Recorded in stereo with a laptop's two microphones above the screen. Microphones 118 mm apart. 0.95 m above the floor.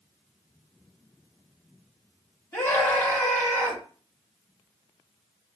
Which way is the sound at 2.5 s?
20° left (ahead or behind).